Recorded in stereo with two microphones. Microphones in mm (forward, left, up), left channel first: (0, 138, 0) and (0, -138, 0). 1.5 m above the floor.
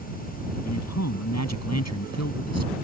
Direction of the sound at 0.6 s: 70° left (ahead or behind).